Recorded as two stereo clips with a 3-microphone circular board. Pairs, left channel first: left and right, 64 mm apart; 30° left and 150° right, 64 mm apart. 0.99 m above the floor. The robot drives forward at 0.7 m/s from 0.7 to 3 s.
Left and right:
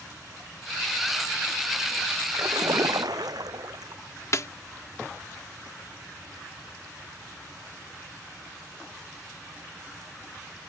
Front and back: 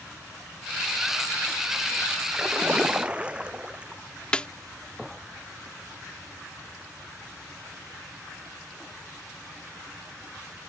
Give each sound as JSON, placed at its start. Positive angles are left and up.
{"t": 2.3, "sound": "a splash", "azimuth_deg": -75}
{"t": 4.3, "sound": "a snare drum", "azimuth_deg": 100}